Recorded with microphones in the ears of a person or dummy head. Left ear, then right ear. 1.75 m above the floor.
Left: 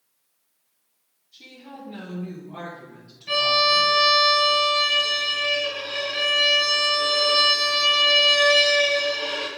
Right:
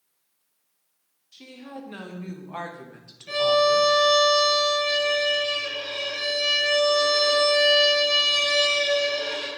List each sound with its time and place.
1.3 s a woman speaking: 50° right (ahead or behind), 1.6 m; by 3.9 s 35° right (ahead or behind), 0.7 m
3.3 s a violin: 5° left (ahead or behind), 3 m